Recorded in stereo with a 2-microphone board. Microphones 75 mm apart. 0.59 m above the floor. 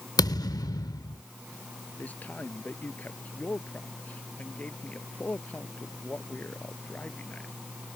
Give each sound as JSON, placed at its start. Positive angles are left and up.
{"t": 0.2, "sound": "a thud", "side_deg": 60}
{"t": 2.0, "sound": "a man speaking", "side_deg": 25}